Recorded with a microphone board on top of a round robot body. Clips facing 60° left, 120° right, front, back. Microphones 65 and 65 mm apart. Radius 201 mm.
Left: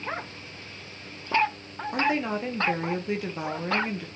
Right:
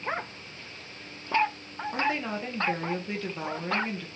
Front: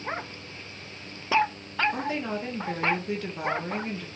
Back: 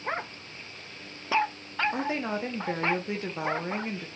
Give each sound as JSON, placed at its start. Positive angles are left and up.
{"t": 1.9, "sound": "a woman speaking", "azimuth_deg": 130, "distance_m": 1.0}